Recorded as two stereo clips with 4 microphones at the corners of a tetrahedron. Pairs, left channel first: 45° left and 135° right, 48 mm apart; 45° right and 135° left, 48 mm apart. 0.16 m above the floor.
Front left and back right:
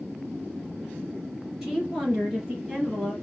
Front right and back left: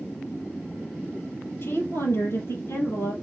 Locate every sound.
1.6 s a woman speaking: 55° right, 3 m; by 3.1 s 60° right, 3.5 m